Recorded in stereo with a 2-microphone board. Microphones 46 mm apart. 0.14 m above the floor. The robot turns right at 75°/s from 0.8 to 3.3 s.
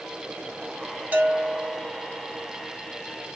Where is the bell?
120° right, 1.0 m; by 1.8 s 65° right, 1.0 m.